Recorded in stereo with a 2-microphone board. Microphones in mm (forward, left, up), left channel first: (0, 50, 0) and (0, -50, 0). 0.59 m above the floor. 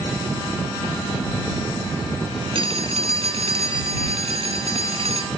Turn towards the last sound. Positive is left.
turn(degrees=-60)  # may be behind; listen again after turning